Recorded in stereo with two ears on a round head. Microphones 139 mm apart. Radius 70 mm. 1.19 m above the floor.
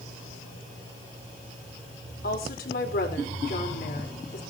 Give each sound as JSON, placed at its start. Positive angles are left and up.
{"t": 2.2, "sound": "a woman speaking", "side_deg": 60, "distance_m": 4.5}